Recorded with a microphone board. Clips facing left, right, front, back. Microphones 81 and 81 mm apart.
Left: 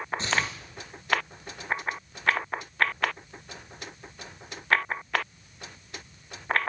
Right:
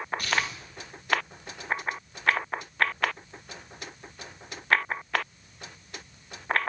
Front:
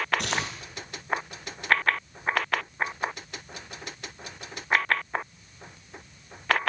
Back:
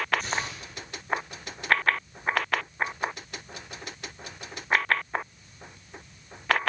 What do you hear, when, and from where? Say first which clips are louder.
0.2 s tearing paper: left 1 dB, front 1 dB; 25° left, 4.5 m